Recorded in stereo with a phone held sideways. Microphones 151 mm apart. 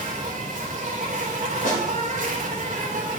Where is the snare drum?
60° left (ahead or behind), 3 m.